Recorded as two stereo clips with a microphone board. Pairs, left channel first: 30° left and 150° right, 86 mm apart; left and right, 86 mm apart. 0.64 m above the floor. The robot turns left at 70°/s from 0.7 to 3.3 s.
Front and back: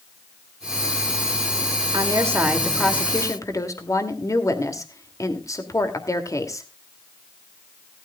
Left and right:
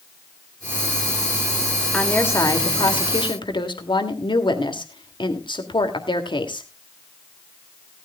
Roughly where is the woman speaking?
Behind.